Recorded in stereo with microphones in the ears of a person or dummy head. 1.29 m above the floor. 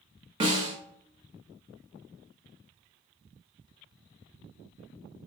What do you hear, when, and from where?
0.4 s a snare drum: 30° right (ahead or behind), 1.0 m